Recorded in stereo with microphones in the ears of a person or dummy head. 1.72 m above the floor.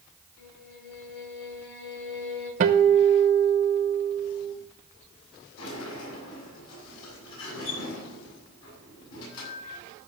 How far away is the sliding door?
About 7 m.